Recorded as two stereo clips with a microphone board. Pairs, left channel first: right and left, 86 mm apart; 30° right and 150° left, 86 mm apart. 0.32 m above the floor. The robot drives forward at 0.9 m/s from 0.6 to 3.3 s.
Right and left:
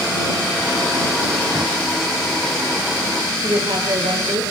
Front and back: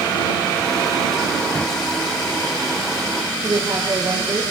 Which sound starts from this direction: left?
A woman speaking, at 3.4 s.